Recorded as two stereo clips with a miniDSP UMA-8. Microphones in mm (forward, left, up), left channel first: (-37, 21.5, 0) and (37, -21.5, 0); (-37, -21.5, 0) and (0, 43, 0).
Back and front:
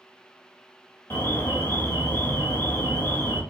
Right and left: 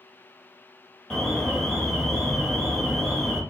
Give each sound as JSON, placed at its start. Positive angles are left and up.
{"t": 1.1, "sound": "an alarm", "azimuth_deg": 165, "distance_m": 1.0}